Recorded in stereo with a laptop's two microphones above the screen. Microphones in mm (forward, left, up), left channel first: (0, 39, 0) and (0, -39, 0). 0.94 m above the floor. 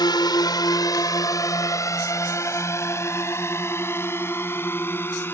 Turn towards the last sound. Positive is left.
turn(degrees=30)  # may be behind; listen again after turning